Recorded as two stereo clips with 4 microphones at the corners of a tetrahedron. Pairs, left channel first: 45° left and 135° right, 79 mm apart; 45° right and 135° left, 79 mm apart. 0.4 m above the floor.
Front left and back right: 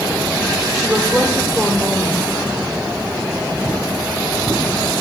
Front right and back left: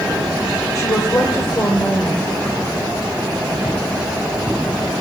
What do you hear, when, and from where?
0.8 s a woman speaking: 50° right, 1.0 m